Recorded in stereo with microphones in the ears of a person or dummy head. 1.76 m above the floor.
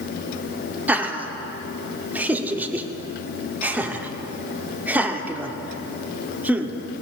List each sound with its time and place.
0.9 s laughter: 10° right (ahead or behind), 1.1 m